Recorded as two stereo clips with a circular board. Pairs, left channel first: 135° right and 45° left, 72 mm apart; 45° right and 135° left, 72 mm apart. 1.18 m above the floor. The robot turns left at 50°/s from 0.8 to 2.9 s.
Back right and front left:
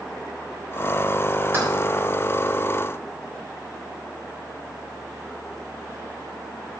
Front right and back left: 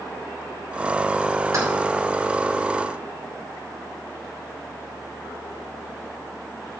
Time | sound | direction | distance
1.5 | keys jangling | 100° left | 3.5 m